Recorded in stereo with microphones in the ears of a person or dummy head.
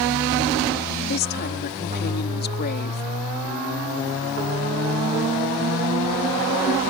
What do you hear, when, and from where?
1.1 s a woman speaking: 50° left (ahead or behind)